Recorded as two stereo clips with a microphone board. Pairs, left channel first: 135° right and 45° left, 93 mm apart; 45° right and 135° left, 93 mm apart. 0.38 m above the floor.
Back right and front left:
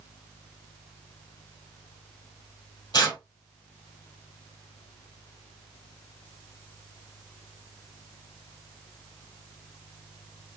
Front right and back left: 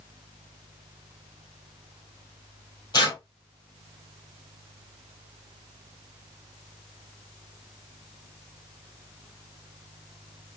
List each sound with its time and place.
2.9 s tearing paper: 90° right, 2.5 m